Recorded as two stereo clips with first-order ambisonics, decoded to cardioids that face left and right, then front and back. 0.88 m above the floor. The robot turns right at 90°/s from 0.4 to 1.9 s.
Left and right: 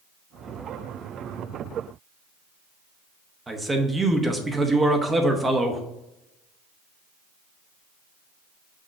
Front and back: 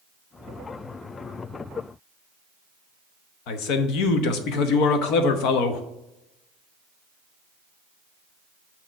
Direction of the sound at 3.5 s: 10° right.